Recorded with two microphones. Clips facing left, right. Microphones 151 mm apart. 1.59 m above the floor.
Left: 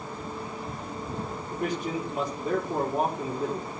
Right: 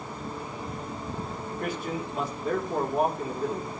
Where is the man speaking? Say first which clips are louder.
Left 3 dB; 15° left (ahead or behind), 4 m.